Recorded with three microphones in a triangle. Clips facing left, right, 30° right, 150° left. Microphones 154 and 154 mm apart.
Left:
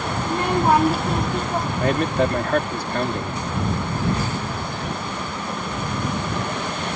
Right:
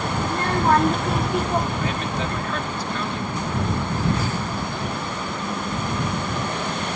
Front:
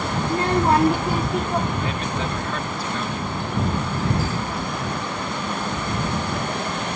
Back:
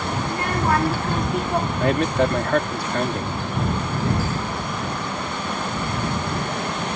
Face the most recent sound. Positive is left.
turn(degrees=125)